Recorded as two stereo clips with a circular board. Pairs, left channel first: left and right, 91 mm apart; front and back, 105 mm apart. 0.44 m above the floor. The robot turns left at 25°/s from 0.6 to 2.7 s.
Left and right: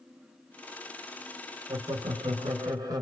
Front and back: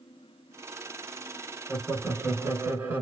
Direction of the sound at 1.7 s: 95° right.